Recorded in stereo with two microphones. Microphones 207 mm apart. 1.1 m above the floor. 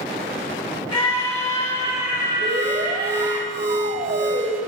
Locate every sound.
0.9 s a scream: 30° left (ahead or behind), 3 m; by 3.4 s 40° left (ahead or behind), 5.5 m
2.4 s an alarm: 60° right (ahead or behind), 3 m